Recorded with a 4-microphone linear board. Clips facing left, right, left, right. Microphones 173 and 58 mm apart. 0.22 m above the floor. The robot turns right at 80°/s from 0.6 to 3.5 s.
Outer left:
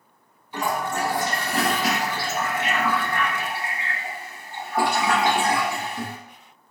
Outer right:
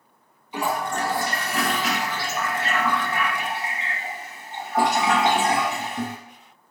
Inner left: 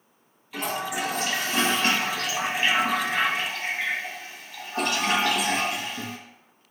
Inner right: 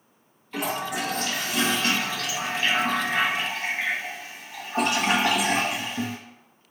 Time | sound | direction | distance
0.5 | a toilet flushing | 15° right | 0.7 m